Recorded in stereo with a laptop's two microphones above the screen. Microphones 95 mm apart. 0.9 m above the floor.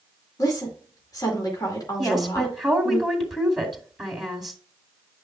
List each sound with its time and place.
0.4 s a woman speaking: 40° left (ahead or behind), 2 m
2.0 s a woman speaking: centre (ahead or behind), 2 m